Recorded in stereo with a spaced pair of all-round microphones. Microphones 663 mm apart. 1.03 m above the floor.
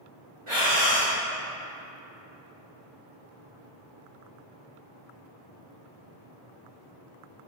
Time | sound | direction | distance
0.5 | breathing | 50° right (ahead or behind) | 2 m